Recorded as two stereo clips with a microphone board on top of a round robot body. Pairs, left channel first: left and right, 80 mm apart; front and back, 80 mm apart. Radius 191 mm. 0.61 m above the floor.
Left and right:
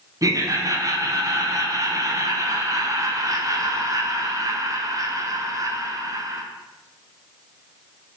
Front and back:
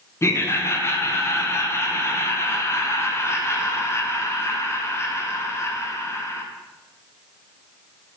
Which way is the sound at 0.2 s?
50° right.